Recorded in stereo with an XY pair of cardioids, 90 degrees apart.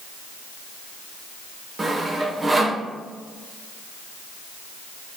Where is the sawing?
25° right, 1.1 m.